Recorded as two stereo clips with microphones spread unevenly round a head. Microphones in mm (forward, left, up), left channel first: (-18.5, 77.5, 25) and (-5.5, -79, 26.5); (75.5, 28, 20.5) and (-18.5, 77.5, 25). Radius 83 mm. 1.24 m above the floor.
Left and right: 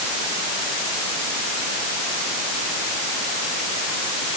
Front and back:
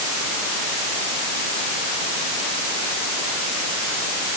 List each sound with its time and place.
Only background noise.